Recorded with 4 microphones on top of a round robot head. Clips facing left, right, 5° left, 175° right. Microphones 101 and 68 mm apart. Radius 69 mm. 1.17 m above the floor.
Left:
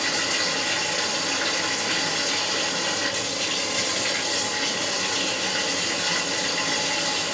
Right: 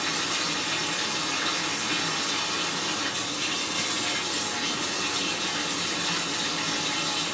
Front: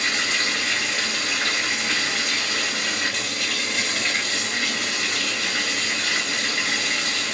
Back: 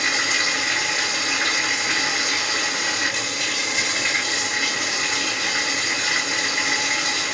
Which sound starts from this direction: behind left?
Running water, at 0.0 s.